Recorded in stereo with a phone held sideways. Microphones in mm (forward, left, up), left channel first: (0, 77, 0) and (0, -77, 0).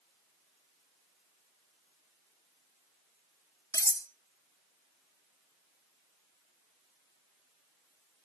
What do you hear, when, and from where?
3.7 s cutlery clinking: 20° left (ahead or behind), 0.7 m